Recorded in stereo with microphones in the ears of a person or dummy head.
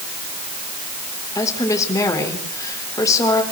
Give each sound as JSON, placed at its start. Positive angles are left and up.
{"t": 1.4, "sound": "a woman speaking", "side_deg": 15, "distance_m": 4.5}